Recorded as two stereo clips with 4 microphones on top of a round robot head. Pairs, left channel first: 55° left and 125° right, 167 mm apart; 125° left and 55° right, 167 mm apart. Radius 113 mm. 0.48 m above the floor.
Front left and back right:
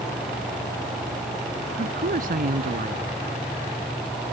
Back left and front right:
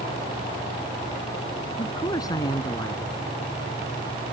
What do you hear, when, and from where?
1.8 s a man speaking: 165° right